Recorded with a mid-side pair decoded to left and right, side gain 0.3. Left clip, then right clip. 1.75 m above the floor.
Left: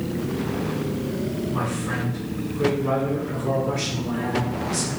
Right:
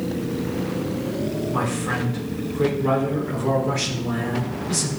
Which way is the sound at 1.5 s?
70° right.